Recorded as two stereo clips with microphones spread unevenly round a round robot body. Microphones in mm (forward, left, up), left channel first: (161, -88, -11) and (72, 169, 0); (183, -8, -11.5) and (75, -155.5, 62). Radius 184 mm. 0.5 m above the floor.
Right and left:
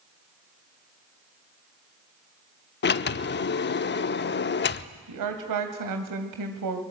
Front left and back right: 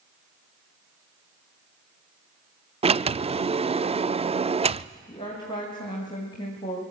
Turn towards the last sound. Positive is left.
turn(degrees=120)